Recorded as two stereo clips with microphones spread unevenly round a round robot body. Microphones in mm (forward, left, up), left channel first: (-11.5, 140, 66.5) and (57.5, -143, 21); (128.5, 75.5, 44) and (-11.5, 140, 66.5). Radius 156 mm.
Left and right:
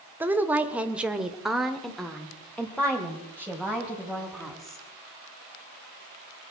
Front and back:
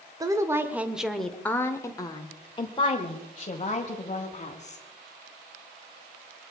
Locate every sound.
0.2 s a woman speaking: 140° right, 1.1 m; by 4.8 s 15° left, 2.5 m